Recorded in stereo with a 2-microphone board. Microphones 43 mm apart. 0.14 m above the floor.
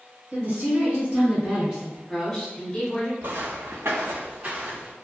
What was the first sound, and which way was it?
A woman speaking, 40° right (ahead or behind).